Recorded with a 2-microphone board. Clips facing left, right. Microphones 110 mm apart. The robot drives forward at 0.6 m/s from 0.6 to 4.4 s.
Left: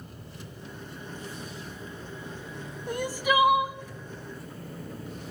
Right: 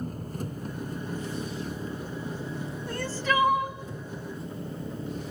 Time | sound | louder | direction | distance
0.0 | an engine running | right 10 dB | 45° right (ahead or behind) | 2 m
2.9 | crying | left 2 dB | 15° left (ahead or behind) | 0.6 m